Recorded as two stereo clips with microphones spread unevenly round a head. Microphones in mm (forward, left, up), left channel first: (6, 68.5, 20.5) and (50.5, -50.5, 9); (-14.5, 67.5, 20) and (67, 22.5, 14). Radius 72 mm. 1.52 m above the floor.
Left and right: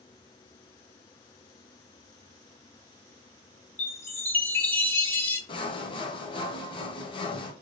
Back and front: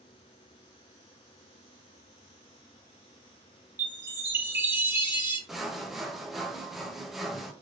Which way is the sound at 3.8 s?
40° left.